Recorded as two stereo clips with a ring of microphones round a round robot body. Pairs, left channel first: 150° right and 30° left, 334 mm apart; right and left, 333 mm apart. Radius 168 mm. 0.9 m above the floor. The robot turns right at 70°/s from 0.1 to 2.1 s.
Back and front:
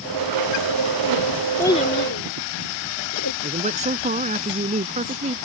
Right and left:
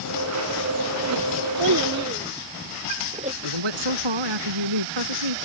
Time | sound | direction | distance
1.6 | a child speaking | 125° left | ?
3.4 | a man speaking | 100° left | ?